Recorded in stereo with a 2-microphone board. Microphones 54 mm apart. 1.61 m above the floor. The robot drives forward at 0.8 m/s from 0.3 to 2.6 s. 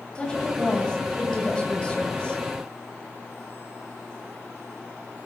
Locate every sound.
0.1 s a woman speaking: 15° left (ahead or behind), 8 m; by 2.4 s 20° left (ahead or behind), 6 m